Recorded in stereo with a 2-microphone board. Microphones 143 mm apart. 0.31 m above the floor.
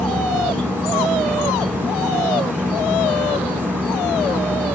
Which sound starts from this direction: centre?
An insect, at 0.0 s.